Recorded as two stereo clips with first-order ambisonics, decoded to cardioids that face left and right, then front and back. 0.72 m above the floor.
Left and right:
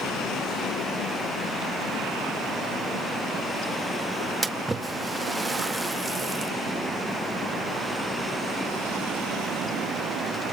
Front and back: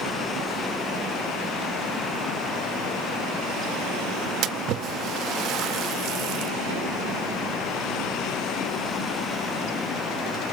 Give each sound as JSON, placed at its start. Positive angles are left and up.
{"t": 4.4, "sound": "a splash", "azimuth_deg": -170, "distance_m": 0.8}